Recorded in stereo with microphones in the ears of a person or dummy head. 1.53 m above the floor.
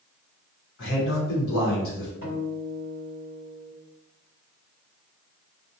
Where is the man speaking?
65° left (ahead or behind), 1.0 m.